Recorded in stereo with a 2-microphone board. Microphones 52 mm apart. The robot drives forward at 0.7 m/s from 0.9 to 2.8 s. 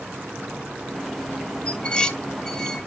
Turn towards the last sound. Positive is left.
turn(degrees=10)  # may be behind; listen again after turning